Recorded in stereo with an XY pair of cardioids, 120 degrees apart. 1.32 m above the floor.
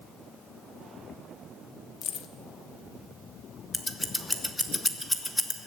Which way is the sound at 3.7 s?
10° left.